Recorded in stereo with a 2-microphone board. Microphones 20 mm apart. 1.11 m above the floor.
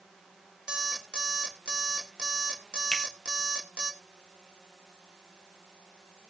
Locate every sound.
0.7 s an alarm clock: 60° right (ahead or behind), 1.6 m
2.9 s a finger snap: 30° left (ahead or behind), 2.5 m